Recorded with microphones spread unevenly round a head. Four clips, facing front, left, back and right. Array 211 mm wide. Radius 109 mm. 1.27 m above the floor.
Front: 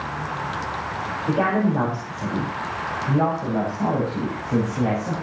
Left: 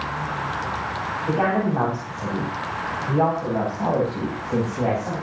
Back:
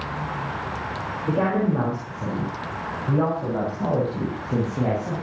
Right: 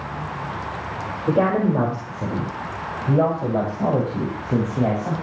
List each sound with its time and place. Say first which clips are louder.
1.3 s a woman speaking: right 3 dB, front 1 dB; 105° right, 6 m; by 5.1 s 95° right, 7.5 m